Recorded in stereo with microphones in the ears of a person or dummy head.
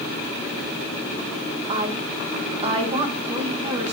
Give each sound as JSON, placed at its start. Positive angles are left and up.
{"t": 1.7, "sound": "a woman speaking", "side_deg": -30, "distance_m": 1.0}